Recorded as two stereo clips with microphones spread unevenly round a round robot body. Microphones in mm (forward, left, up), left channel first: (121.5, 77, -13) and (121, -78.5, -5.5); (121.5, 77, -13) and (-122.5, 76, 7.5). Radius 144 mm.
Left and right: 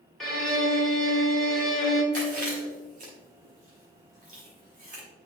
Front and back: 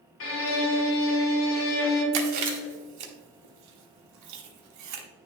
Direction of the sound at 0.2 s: Straight ahead.